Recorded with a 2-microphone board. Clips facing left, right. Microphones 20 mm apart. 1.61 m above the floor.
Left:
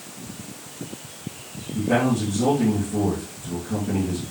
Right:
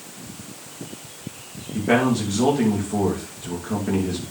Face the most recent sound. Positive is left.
turn(degrees=-85)